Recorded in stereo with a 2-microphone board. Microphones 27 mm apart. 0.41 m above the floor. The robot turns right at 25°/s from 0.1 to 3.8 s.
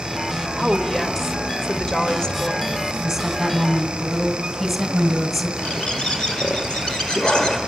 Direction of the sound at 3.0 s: 10° right (ahead or behind).